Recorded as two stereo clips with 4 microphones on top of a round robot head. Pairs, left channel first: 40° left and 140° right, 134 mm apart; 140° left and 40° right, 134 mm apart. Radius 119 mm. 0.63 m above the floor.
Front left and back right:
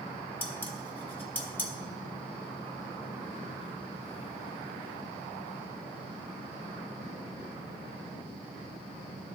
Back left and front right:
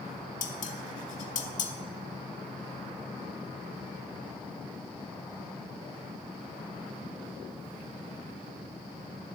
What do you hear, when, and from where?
0.4 s dishes clattering: 120° left, 1.1 m